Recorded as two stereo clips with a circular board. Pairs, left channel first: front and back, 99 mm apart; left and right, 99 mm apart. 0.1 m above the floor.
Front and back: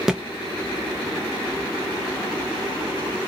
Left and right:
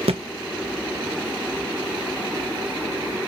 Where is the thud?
95° right, 0.6 m.